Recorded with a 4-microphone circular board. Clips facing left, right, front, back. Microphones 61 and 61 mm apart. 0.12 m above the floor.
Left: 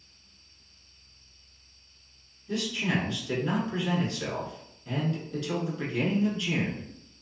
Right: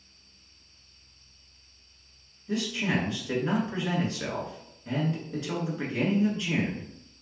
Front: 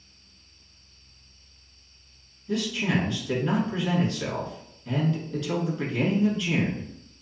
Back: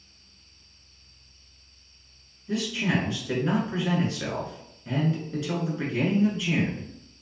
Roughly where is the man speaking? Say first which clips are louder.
Right 1 dB, even; behind right.